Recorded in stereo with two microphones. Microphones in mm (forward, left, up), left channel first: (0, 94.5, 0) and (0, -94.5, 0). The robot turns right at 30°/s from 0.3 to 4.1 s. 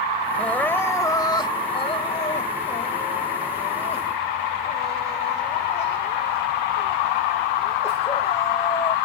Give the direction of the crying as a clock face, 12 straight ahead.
12 o'clock.